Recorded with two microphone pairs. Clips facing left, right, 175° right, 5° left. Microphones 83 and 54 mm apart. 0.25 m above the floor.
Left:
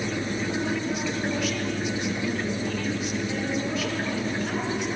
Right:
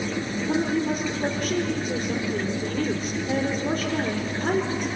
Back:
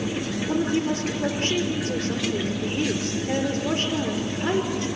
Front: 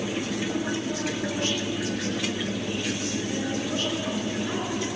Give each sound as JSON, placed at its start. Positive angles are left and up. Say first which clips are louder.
{"t": 0.5, "sound": "a woman speaking", "louder": "right 7 dB, back 5 dB", "azimuth_deg": -125, "distance_m": 3.5}